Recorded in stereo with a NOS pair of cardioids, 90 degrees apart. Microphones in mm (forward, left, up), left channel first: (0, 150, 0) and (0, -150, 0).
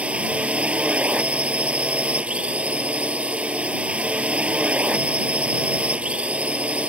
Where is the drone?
5° right.